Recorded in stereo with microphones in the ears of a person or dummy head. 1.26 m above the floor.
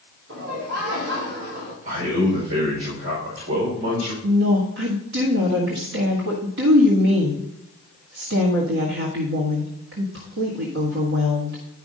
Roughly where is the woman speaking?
Right.